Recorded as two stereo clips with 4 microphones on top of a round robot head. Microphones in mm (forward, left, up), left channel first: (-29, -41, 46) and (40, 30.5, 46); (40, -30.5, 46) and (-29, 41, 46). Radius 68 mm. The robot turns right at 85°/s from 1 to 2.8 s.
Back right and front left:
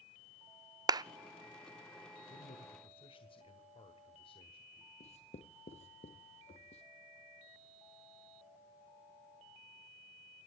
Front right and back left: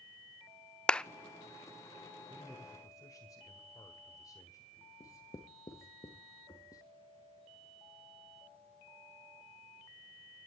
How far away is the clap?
About 0.6 m.